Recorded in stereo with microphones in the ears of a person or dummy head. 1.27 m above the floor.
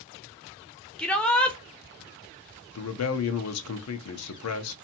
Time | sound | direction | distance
1.0 | a shout | centre (ahead or behind) | 0.5 m
2.8 | a man speaking | 85° left | 0.6 m